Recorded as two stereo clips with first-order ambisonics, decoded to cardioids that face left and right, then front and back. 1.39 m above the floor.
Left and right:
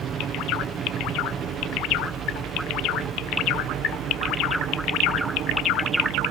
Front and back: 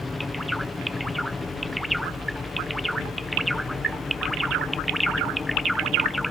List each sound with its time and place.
0.0 s a helicopter: 75° right; by 6.3 s 70° right